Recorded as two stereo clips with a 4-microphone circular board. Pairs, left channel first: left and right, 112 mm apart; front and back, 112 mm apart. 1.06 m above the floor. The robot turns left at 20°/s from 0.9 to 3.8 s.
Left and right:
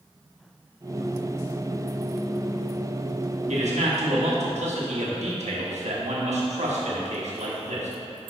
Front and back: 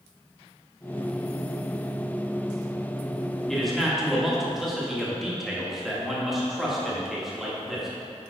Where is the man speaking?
85° right, 1.2 m; by 7.9 s 90° right, 1.2 m.